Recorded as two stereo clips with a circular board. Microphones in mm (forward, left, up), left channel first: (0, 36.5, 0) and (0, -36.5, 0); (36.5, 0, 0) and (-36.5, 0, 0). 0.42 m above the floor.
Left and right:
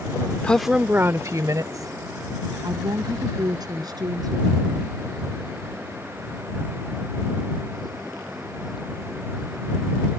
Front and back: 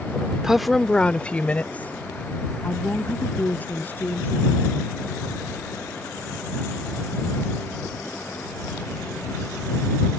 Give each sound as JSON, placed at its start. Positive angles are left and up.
{"t": 0.4, "sound": "a woman speaking", "azimuth_deg": 120}